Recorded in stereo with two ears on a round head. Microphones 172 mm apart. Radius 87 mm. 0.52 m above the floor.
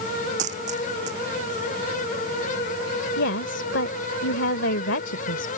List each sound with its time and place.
0.4 s a dropped coin: 35° right (ahead or behind)
3.2 s a woman speaking: 65° left (ahead or behind)